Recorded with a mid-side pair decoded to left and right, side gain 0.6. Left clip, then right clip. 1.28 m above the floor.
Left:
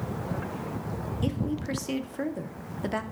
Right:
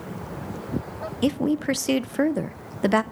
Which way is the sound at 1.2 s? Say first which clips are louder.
Right 10 dB; 45° right.